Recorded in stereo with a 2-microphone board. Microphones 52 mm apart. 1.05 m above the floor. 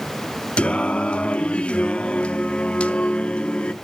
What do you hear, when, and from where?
0.6 s singing: 25° left (ahead or behind), 0.6 m